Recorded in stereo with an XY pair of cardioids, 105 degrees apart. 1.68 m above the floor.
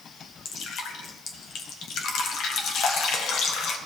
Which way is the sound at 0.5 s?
70° left.